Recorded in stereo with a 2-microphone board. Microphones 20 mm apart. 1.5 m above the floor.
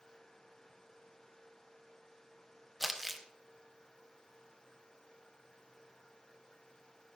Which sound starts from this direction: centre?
Crumpling, at 2.8 s.